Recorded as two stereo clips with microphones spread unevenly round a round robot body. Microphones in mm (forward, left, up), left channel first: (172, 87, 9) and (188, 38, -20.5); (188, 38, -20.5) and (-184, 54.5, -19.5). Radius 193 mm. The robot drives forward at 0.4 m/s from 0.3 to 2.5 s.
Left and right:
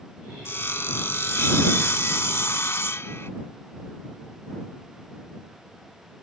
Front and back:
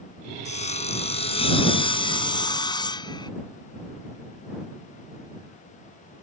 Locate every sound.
0.5 s sawing: 70° left; by 3.3 s 75° left